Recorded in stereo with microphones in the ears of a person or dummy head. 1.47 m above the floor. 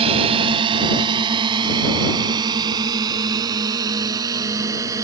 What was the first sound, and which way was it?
A drone, 35° right (ahead or behind).